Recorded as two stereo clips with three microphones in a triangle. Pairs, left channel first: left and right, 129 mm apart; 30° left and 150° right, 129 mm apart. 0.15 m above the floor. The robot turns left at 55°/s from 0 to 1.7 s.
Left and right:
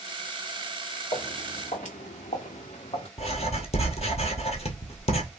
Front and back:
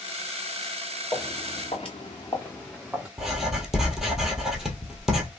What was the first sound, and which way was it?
Footsteps, 85° left.